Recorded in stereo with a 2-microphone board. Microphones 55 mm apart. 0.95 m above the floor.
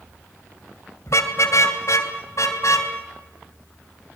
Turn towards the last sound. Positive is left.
turn(degrees=70)  # may be behind; listen again after turning